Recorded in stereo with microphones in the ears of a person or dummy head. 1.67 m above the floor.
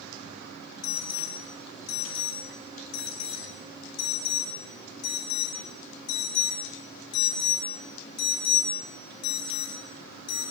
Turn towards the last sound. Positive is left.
turn(degrees=65)  # may be behind; listen again after turning